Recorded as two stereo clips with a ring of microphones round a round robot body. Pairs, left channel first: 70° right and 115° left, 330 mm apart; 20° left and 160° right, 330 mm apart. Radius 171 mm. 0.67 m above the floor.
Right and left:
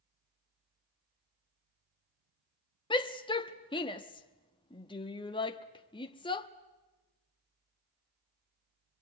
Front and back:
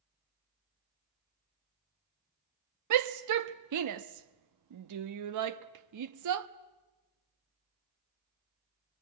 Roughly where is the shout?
Behind right.